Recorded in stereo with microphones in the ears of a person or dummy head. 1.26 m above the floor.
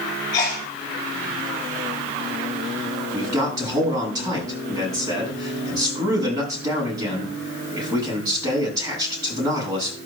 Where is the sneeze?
20° left (ahead or behind), 2.5 m.